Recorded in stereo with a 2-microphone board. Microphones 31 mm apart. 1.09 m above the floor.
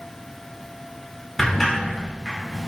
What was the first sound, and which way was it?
A sliding door, 10° left (ahead or behind).